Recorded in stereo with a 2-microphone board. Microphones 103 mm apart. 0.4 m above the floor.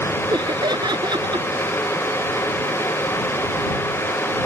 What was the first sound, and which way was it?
Laughter, 45° right (ahead or behind).